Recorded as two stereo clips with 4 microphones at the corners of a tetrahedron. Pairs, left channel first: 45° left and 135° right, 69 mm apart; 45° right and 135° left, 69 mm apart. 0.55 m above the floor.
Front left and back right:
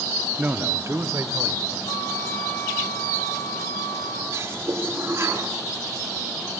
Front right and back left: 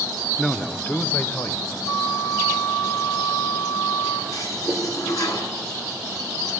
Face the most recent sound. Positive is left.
turn(degrees=-80)